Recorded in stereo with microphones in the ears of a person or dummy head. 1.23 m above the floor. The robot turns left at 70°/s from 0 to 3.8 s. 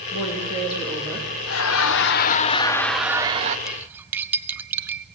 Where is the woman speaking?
65° left, 3.5 m; by 1.3 s 15° right, 3.5 m.